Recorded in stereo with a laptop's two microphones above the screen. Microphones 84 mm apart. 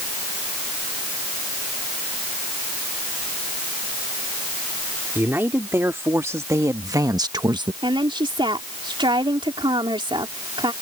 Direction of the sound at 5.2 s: 25° right (ahead or behind).